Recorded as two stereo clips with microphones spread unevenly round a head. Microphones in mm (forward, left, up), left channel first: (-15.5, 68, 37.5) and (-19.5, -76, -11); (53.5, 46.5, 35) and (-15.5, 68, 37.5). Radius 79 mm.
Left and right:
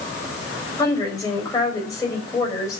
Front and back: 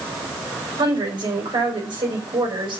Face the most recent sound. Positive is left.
turn(degrees=155)